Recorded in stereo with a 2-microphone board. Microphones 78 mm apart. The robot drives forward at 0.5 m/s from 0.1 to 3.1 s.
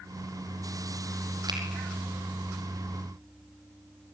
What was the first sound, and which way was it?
A finger snap, 65° right (ahead or behind).